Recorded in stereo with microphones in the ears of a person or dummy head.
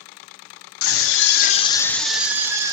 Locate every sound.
0.8 s a scream: 75° left (ahead or behind), 1.0 m; by 2.7 s 15° right (ahead or behind), 1.5 m